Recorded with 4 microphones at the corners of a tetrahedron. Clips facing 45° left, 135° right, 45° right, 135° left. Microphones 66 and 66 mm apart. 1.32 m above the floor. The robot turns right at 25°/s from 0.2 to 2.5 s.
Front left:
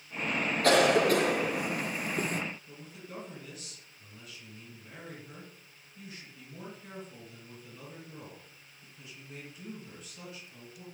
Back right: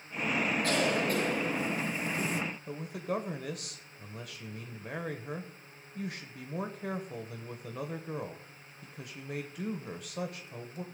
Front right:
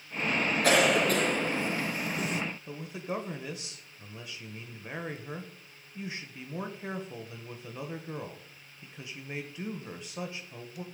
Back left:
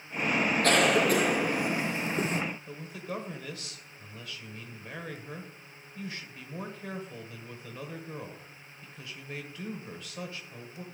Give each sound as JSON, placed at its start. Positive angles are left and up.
{"t": 0.6, "sound": "a cough", "azimuth_deg": 35, "distance_m": 1.0}
{"t": 2.7, "sound": "a man speaking", "azimuth_deg": -115, "distance_m": 1.1}